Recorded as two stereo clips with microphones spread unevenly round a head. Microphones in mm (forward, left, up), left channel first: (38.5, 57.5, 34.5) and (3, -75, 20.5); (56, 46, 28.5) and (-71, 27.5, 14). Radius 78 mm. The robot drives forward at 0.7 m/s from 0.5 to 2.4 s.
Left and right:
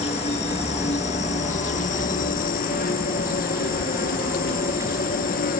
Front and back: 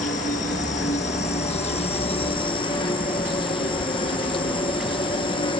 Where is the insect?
35° left; by 5.6 s 55° left.